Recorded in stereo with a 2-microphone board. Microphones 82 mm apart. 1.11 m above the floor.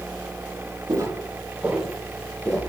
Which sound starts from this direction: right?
Footsteps, at 0.9 s.